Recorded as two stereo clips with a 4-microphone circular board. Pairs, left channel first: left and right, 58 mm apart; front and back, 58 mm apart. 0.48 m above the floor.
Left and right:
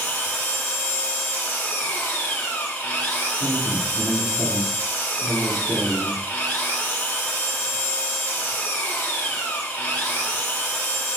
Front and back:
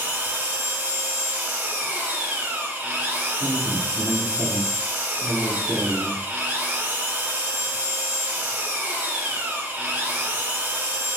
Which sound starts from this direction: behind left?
An engine running, at 0.0 s.